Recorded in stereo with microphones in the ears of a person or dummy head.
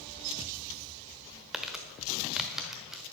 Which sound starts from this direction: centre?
Crumpling, at 1.5 s.